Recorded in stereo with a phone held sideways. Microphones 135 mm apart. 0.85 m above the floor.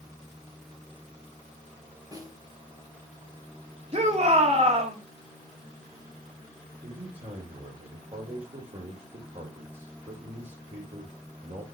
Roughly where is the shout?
Right.